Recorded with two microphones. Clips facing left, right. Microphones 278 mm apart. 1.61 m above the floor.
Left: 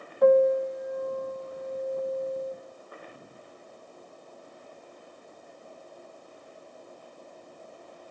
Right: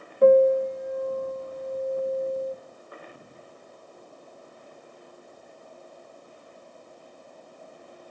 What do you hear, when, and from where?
0.2 s a piano: 30° right (ahead or behind), 1.2 m